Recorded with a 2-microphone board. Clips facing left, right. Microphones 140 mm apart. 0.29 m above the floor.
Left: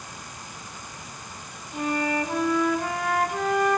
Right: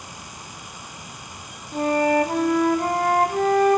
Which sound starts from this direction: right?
A flute, at 1.7 s.